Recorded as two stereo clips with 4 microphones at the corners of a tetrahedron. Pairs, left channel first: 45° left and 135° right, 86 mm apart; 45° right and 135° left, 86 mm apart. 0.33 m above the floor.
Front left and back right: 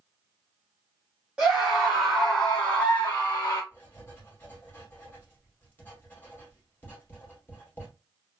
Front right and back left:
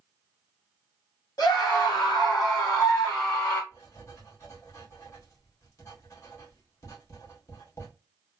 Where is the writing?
15° right, 2.0 m.